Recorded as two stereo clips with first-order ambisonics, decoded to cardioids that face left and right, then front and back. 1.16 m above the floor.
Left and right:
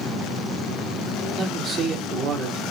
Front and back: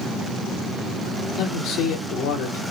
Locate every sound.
1.4 s a man speaking: 40° right, 2.5 m